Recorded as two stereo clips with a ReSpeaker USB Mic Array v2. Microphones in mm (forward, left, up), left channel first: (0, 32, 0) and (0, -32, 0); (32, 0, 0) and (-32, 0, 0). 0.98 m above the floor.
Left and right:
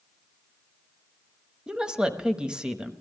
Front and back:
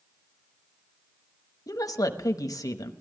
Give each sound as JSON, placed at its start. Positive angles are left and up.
{"t": 1.7, "sound": "a woman speaking", "azimuth_deg": -10, "distance_m": 0.9}